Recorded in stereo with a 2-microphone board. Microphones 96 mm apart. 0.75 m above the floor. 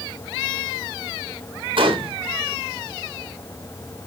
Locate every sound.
1.8 s a gunshot: 65° right (ahead or behind), 3.5 m